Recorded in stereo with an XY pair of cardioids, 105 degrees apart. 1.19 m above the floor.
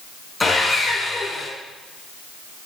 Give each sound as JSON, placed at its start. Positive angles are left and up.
{"t": 0.4, "sound": "sawing", "azimuth_deg": 15, "distance_m": 6.5}